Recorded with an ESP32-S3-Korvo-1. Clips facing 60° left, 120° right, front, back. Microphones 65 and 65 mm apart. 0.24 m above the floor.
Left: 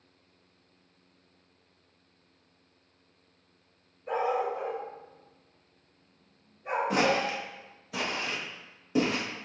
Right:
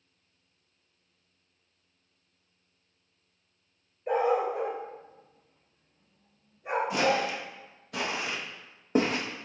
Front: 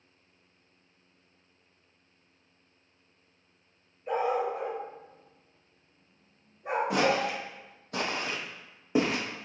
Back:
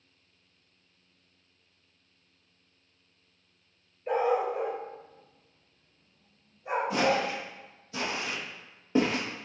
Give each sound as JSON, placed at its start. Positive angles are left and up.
{"t": 4.1, "sound": "a dog barking", "azimuth_deg": -120, "distance_m": 1.2}
{"t": 6.9, "sound": "footsteps", "azimuth_deg": 25, "distance_m": 0.8}